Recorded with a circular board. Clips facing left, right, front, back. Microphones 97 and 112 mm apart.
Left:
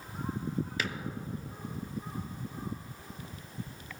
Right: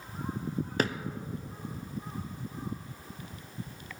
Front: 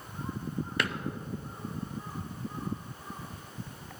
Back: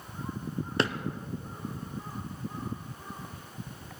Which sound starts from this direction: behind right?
A drawer, at 0.8 s.